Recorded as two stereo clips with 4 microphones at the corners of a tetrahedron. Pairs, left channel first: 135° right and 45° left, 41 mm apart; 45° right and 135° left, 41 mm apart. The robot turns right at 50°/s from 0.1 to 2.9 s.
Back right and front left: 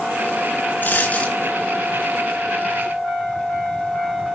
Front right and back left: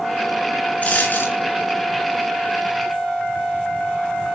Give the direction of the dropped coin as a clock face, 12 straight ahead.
3 o'clock.